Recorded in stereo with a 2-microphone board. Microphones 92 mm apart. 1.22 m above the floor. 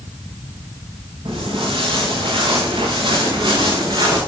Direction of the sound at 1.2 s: 75° right (ahead or behind).